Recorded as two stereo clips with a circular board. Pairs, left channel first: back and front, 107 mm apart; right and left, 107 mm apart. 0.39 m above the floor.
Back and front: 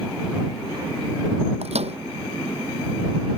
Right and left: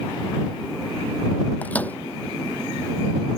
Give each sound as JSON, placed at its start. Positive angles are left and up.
{"t": 1.6, "sound": "a microwave", "azimuth_deg": -15}